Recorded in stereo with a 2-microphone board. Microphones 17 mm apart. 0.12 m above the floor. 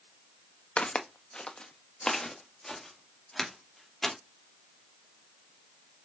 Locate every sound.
0.8 s footsteps: 80° left, 0.7 m; by 4.2 s 10° left (ahead or behind), 2 m